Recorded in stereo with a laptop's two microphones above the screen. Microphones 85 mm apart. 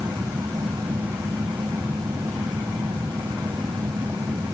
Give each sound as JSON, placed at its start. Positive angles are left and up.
{"t": 0.0, "sound": "a fan", "side_deg": -60}